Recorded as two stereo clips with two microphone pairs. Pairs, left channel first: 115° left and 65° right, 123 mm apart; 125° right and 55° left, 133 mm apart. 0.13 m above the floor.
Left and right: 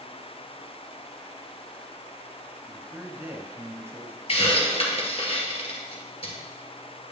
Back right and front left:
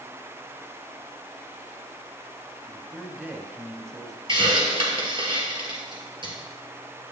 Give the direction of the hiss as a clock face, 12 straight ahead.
9 o'clock.